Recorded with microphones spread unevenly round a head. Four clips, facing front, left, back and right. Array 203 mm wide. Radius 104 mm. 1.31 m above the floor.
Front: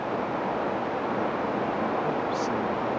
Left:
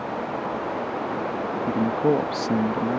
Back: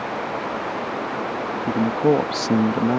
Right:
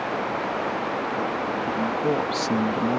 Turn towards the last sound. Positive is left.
turn(degrees=-175)